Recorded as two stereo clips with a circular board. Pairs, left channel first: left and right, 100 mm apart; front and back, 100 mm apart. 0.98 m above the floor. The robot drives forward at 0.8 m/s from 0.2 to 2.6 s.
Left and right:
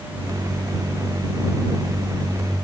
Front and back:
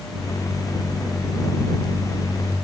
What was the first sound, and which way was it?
Only background noise.